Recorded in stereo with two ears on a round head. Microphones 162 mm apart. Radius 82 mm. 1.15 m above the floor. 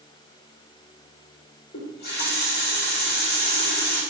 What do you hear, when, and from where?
1.7 s a running tap: 65° left (ahead or behind), 1.8 m